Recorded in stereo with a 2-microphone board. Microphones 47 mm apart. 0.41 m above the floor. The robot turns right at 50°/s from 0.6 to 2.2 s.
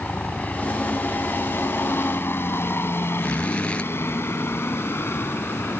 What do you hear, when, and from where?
0.0 s a helicopter: 45° left (ahead or behind); by 5.8 s 70° left (ahead or behind)
3.2 s a zipper: 25° left (ahead or behind)